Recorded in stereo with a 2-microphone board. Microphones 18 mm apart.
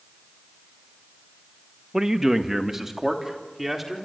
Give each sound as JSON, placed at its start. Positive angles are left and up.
{"t": 1.9, "sound": "a man speaking", "side_deg": -30, "distance_m": 1.5}